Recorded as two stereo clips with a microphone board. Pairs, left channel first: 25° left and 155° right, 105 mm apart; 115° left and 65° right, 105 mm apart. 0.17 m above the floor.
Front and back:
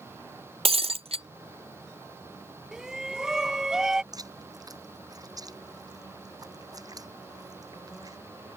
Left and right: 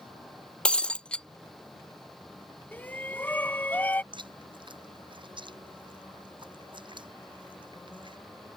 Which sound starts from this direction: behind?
Breaking glass, at 0.7 s.